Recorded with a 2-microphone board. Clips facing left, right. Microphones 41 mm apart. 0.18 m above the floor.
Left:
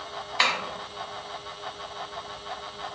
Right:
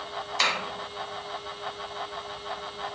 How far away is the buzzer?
I don't hear a buzzer.